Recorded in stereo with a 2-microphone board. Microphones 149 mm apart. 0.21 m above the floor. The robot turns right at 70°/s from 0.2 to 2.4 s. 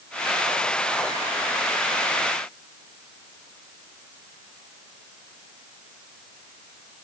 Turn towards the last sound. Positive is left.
No sound to turn to.